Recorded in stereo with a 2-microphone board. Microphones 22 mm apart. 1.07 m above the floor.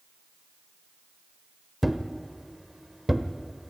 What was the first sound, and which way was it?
A thud, 5° right (ahead or behind).